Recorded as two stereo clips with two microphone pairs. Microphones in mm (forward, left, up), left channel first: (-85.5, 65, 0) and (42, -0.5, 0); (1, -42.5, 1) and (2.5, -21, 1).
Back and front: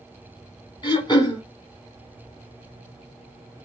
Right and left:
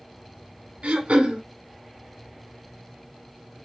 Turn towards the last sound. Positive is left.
turn(degrees=100)